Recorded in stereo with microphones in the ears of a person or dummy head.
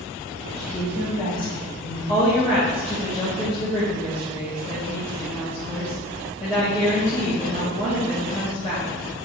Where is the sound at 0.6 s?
40° left (ahead or behind), 2 m; by 2.0 s 35° left (ahead or behind), 3 m.